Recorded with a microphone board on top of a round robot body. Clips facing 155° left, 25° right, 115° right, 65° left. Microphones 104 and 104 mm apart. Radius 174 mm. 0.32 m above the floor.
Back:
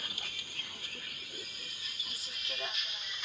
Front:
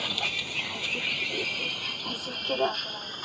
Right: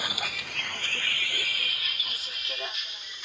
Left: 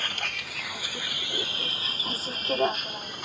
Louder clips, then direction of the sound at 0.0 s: Front 13 dB, right 1 dB; 30° right.